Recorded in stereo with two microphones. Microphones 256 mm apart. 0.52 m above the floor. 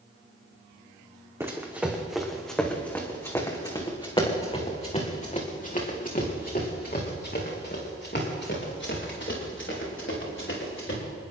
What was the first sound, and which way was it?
Running footsteps, 10° right (ahead or behind).